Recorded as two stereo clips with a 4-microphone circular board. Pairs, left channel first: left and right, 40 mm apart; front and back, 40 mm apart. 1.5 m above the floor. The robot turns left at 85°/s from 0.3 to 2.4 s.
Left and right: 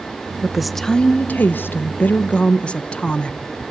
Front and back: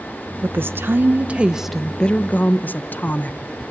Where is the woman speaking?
160° right, 0.9 m; by 3.4 s 30° left, 0.9 m.